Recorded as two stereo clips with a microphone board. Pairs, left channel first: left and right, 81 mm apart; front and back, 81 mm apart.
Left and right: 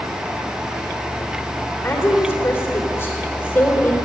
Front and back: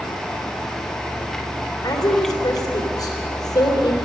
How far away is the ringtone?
I don't hear a ringtone.